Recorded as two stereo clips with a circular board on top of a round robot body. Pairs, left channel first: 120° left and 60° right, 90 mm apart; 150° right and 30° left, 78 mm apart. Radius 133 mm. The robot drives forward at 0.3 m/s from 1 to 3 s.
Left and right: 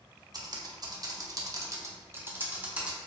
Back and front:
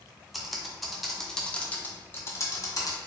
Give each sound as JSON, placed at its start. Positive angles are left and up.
{"t": 0.3, "sound": "typing on a keyboard", "azimuth_deg": -60, "distance_m": 0.7}